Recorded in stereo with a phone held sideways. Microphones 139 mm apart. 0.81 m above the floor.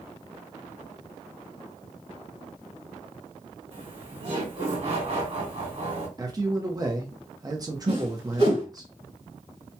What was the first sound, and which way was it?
Laughter, 45° right (ahead or behind).